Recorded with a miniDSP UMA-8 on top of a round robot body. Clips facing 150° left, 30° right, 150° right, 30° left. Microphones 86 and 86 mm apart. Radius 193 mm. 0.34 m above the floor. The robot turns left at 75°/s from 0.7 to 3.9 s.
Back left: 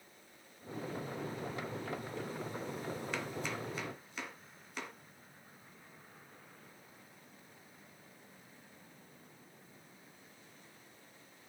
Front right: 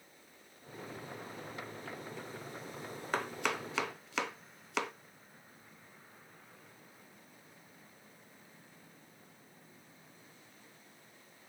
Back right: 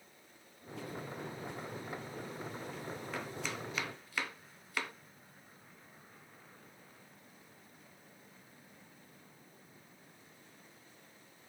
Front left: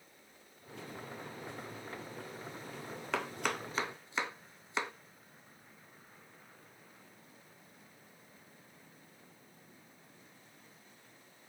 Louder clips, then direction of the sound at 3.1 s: Front right 4 dB, front left 9 dB; 20° left.